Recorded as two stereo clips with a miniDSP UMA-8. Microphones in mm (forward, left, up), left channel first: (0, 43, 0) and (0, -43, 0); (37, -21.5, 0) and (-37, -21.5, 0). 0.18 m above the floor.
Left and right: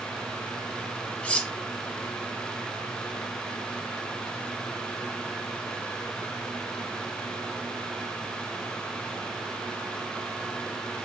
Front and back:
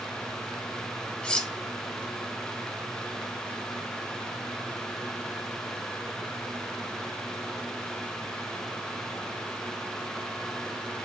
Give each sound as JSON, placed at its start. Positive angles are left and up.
{"t": 1.2, "sound": "cutlery clinking", "azimuth_deg": 50, "distance_m": 0.7}